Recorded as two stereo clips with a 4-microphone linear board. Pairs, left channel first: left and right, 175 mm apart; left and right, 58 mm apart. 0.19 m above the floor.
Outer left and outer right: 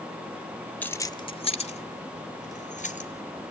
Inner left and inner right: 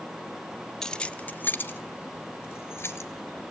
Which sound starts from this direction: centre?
Keys jangling, at 0.8 s.